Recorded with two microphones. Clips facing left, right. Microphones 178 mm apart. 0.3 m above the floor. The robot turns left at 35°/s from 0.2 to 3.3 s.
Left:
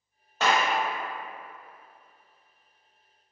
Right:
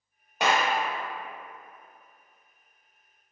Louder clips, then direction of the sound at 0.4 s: Even; 15° right (ahead or behind).